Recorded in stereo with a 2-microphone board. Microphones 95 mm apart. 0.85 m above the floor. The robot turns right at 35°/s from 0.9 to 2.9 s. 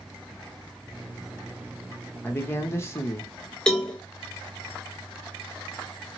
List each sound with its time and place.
2.2 s a man speaking: 20° left (ahead or behind), 0.8 m; by 3.3 s 30° left (ahead or behind), 0.8 m
3.7 s a cowbell: 10° left (ahead or behind), 0.8 m